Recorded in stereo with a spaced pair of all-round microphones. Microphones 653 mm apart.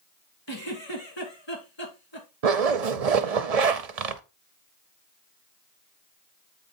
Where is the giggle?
40° left (ahead or behind), 2.5 m.